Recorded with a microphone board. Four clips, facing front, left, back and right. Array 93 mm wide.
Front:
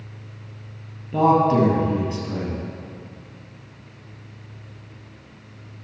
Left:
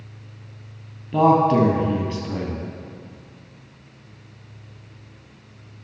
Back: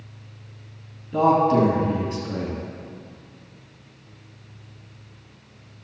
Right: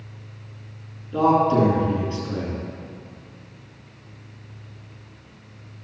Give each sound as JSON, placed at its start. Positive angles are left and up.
{"t": 1.1, "sound": "a man speaking", "azimuth_deg": 65, "distance_m": 2.5}